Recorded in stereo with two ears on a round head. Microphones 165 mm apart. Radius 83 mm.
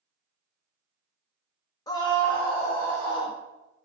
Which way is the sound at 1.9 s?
20° left (ahead or behind).